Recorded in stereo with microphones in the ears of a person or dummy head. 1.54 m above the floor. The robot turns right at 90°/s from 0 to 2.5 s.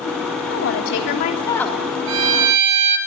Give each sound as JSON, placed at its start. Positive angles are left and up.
{"t": 0.5, "sound": "a woman speaking", "azimuth_deg": 75, "distance_m": 3.0}
{"t": 2.1, "sound": "a violin", "azimuth_deg": -100, "distance_m": 2.5}